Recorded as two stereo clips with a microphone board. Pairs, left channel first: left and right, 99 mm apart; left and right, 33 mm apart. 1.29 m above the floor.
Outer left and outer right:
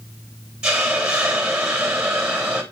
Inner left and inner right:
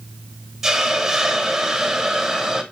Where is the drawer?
I don't hear a drawer.